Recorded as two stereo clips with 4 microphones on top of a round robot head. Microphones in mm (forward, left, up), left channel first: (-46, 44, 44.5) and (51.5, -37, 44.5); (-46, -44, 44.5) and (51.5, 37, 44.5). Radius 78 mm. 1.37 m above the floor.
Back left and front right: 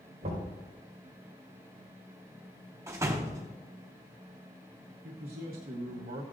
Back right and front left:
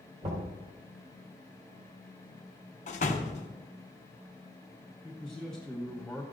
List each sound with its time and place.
0.2 s knocking: straight ahead, 5 m
2.9 s a door slam: 110° right, 1.0 m
5.0 s a man speaking: 55° right, 1.1 m